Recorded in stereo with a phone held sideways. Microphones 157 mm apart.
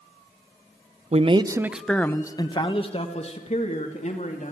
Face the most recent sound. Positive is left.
turn(degrees=50)  # may be behind; listen again after turning